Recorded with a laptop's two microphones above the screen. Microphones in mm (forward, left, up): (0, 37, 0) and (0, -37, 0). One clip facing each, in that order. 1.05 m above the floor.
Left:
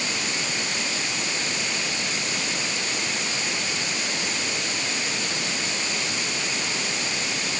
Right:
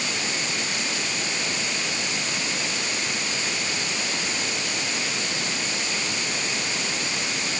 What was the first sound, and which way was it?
Only background noise.